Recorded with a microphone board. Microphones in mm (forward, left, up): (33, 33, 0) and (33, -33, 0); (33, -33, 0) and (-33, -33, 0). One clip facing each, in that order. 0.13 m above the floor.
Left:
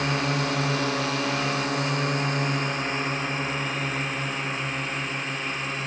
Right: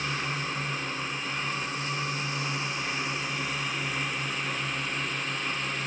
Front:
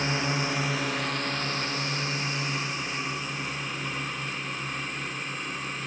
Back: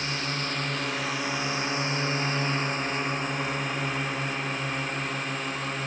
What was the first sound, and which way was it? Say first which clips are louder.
A drone: left 6 dB, front 3 dB; 65° left.